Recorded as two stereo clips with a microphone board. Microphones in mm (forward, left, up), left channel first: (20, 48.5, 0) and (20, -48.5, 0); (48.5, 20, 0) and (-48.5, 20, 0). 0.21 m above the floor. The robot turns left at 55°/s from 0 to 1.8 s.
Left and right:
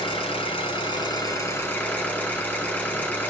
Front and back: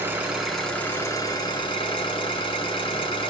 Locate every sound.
0.0 s an engine running: 120° left, 2.5 m; by 3.3 s 20° left, 2.5 m